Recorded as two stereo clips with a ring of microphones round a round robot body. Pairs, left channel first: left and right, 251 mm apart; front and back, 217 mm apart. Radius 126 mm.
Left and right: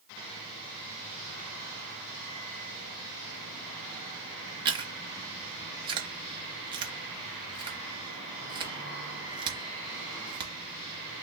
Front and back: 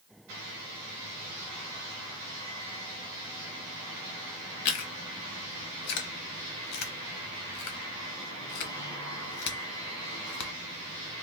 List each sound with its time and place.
4.7 s chewing: 20° right, 0.8 m